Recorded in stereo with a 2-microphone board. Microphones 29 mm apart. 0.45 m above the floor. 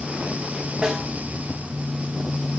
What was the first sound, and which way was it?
A snare drum, 35° right (ahead or behind).